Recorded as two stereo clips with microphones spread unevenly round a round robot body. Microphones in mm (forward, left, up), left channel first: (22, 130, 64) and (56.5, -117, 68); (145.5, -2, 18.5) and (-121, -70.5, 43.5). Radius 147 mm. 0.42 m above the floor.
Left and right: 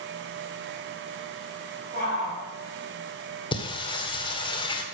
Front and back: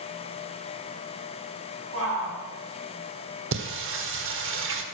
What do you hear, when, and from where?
1.9 s a shout: 135° right, 4 m
3.5 s singing: 160° left, 1.3 m